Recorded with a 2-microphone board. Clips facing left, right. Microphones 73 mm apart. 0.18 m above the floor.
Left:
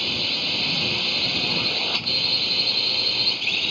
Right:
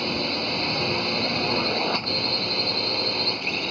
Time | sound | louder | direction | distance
0.0 | a drone | right 4 dB | 25° right (ahead or behind) | ?